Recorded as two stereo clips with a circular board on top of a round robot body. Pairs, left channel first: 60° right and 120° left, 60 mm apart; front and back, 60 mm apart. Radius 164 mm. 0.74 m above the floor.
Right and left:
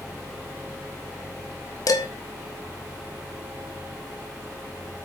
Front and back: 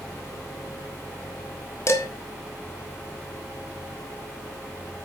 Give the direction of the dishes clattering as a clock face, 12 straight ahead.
1 o'clock.